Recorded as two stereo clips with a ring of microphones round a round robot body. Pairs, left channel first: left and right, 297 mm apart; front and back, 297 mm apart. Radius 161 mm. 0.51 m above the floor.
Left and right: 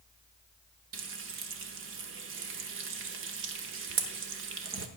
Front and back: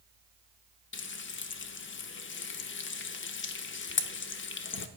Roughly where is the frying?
Ahead right.